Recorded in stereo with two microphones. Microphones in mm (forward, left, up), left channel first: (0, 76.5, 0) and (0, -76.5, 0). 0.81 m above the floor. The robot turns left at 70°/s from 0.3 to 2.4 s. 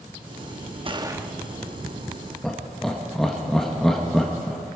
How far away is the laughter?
About 1.0 m.